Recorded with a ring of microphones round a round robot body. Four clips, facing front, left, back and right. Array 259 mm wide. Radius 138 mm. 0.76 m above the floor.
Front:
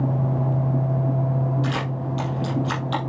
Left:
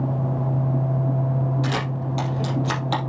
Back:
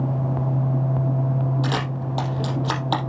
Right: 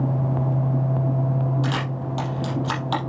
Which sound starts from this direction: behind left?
A camera shutter, at 1.6 s.